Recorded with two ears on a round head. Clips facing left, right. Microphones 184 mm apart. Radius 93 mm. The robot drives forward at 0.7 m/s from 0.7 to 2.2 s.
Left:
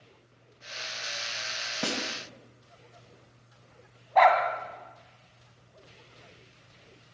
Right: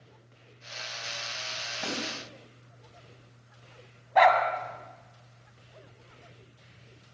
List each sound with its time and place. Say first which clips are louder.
1.8 s a snare drum: left 2 dB; 60° left (ahead or behind), 3 m
4.2 s a dog barking: even; 5° right (ahead or behind), 2 m